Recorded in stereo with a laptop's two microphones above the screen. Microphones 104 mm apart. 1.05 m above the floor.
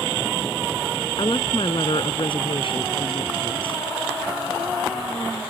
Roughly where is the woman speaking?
Left.